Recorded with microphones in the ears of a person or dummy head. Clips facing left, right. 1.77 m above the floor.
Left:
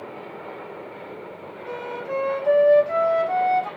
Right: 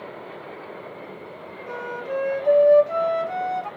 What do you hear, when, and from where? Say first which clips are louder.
1.7 s a flute: even; 15° left (ahead or behind), 1.7 m